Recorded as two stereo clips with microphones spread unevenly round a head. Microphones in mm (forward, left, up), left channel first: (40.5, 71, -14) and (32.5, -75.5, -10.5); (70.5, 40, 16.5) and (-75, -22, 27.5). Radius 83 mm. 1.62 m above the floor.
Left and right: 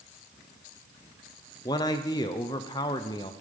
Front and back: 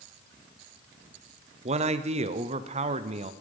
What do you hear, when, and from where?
1.6 s a man speaking: 155° left, 0.6 m